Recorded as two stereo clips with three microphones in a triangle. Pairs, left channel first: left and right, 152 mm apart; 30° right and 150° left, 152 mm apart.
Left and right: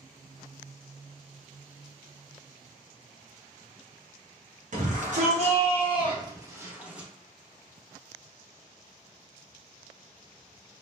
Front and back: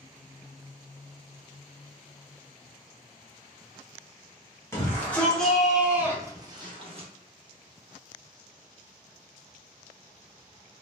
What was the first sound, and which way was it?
A shout, 100° right.